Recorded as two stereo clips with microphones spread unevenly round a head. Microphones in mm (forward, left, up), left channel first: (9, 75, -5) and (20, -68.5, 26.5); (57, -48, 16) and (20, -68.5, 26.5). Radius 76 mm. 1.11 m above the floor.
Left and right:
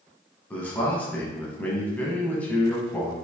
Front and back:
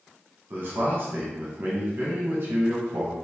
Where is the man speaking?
160° left, 0.9 m.